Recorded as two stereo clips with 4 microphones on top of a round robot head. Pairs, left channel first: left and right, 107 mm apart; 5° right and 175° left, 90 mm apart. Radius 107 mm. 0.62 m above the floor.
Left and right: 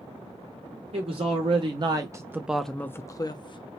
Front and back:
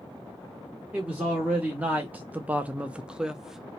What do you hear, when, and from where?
0.9 s a man speaking: 110° right, 1.0 m; by 3.8 s 90° left, 0.8 m